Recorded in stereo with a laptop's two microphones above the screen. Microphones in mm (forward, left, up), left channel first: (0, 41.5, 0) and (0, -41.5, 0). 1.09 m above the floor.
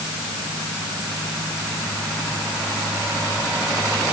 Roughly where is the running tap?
No running tap in this recording.